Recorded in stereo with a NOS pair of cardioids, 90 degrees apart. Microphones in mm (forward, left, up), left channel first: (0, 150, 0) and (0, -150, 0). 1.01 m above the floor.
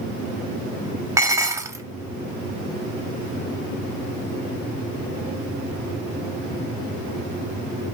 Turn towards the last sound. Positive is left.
turn(degrees=-10)